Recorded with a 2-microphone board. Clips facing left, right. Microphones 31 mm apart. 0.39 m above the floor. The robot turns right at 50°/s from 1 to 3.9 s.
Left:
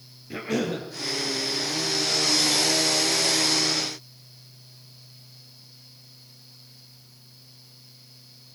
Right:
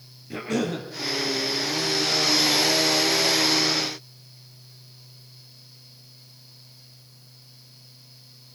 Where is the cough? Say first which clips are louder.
Right 1 dB; 5° left (ahead or behind), 6.5 m.